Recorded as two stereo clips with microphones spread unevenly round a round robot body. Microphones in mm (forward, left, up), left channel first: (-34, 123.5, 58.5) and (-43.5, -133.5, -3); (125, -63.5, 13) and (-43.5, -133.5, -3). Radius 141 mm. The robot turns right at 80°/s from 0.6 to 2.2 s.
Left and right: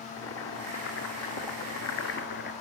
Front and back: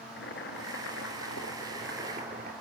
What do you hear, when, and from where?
0.2 s boiling: 10° left, 2 m; by 2.5 s 135° left, 2 m